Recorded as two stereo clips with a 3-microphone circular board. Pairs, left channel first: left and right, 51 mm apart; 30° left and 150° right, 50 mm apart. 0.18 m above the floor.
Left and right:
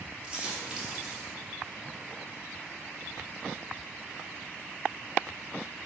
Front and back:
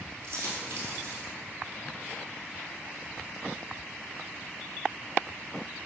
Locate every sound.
0.2 s a dropped coin: 160° right, 1.4 m